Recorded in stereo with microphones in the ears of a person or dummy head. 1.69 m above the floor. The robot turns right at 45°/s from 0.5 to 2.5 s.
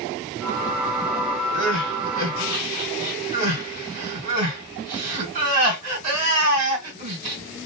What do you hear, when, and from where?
1.5 s crying: 55° right (ahead or behind), 2.5 m; by 7.4 s 40° right (ahead or behind), 2.5 m